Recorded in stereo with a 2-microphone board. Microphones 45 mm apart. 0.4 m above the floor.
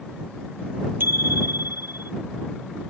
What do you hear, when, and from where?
1.0 s a bicycle bell: 55° right (ahead or behind)